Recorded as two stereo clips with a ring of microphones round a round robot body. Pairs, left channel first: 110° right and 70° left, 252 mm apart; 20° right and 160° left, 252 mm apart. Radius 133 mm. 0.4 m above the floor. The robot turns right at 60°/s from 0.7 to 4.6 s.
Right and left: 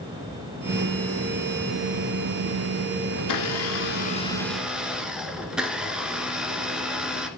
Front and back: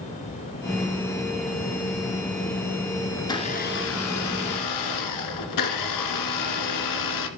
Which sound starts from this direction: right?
A blender, at 3.2 s.